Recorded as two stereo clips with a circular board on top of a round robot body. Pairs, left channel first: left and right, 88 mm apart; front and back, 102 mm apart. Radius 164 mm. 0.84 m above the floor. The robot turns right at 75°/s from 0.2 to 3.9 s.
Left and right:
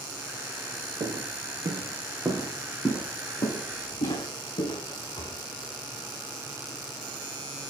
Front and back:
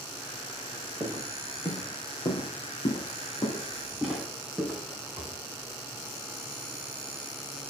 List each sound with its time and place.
1.0 s footsteps: 115° right, 3 m; by 5.3 s 95° left, 5 m